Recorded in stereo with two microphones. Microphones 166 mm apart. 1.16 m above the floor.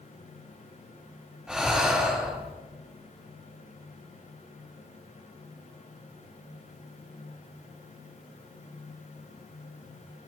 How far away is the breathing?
About 3.5 m.